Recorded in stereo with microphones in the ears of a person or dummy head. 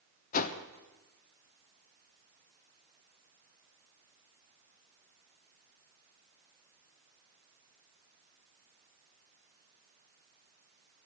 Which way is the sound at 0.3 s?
45° left (ahead or behind).